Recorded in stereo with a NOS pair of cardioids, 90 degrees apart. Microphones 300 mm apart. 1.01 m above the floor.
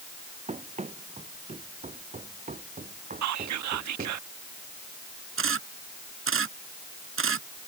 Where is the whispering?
65° right.